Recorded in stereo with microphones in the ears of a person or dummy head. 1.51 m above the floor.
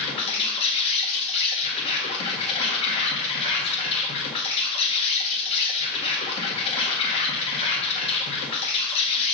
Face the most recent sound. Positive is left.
turn(degrees=30)  # may be behind; listen again after turning